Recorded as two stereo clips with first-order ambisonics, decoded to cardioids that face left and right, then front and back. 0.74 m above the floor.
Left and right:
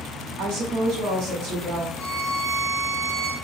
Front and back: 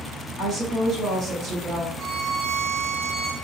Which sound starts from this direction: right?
A woman speaking, at 0.4 s.